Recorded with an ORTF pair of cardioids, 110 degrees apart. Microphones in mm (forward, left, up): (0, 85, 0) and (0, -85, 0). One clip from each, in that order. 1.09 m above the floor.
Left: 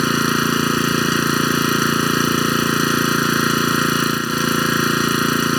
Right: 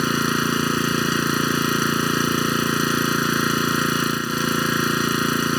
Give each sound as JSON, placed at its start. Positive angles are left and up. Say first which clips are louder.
{"t": 0.0, "sound": "an engine running", "louder": "left 3 dB", "azimuth_deg": 20}